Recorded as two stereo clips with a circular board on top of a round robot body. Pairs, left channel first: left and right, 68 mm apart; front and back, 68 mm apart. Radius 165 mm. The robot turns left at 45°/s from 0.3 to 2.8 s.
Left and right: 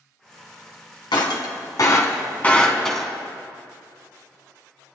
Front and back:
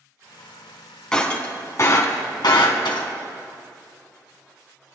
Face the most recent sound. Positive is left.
turn(degrees=5)